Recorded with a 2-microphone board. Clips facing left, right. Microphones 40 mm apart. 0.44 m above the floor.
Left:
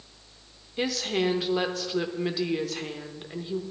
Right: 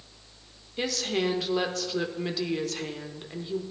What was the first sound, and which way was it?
A woman speaking, 5° left (ahead or behind).